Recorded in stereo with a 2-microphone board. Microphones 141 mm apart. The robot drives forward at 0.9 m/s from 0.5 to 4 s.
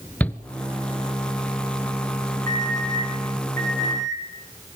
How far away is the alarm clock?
About 6.5 m.